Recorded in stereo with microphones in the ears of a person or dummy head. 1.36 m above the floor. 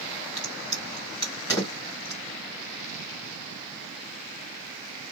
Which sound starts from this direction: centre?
A crack, at 0.4 s.